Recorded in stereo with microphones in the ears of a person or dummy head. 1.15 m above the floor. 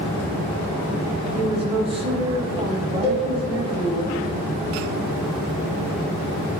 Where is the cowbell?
20° left (ahead or behind), 2 m.